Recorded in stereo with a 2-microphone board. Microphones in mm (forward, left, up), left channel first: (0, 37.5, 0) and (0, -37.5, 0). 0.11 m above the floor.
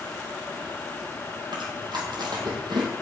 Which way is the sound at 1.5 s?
70° right (ahead or behind).